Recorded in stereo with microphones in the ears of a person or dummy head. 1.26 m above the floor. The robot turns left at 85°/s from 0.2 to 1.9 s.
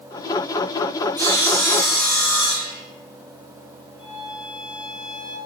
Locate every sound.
1.2 s sawing: 175° left, 8.5 m; by 2.8 s 110° left, 8.5 m
4.0 s a violin: 35° left (ahead or behind), 7 m